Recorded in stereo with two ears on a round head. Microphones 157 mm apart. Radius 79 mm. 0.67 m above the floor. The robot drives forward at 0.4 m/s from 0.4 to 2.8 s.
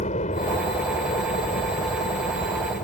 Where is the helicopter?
40° left (ahead or behind); by 2.8 s 45° left (ahead or behind).